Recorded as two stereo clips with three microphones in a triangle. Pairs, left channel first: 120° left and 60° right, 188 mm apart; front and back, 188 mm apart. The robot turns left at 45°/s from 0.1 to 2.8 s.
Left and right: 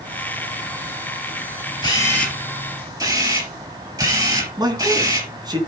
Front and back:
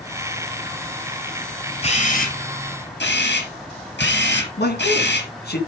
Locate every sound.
1.8 s a camera shutter: 55° left, 4 m; by 5.3 s 10° left, 4 m
4.6 s a man speaking: 5° left, 3.5 m